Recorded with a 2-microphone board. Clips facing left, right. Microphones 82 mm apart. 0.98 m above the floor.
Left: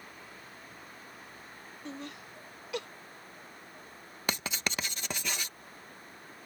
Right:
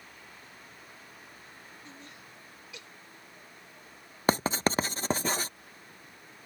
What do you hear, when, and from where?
1.9 s laughter: 70° left (ahead or behind); by 2.9 s 65° left (ahead or behind)
4.3 s writing: 35° right (ahead or behind)